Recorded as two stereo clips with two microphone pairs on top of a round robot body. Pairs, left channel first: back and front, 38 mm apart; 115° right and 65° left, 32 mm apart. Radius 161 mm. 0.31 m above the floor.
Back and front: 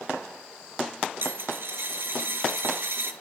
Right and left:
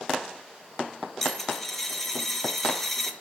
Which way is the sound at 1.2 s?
35° right.